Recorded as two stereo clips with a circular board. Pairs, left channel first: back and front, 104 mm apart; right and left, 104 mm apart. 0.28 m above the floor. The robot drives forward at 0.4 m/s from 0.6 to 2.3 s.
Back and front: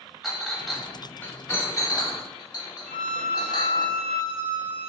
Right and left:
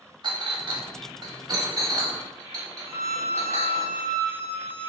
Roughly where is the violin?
Behind left.